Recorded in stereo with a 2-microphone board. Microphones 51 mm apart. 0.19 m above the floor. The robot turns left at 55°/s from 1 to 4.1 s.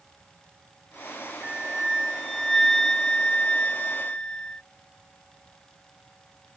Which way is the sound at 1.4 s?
15° right (ahead or behind).